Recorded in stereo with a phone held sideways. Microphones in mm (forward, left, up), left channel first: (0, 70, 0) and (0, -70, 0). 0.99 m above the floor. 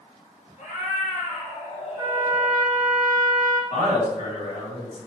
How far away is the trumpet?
About 0.6 m.